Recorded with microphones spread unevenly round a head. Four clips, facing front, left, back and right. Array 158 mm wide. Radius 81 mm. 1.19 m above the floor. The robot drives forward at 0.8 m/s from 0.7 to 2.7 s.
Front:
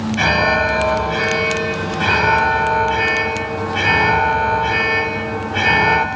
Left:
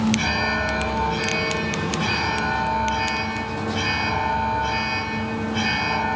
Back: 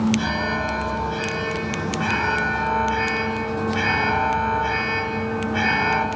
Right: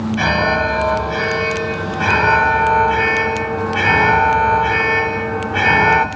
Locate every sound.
0.2 s an alarm: 40° right, 4 m; by 6.1 s 60° right, 3 m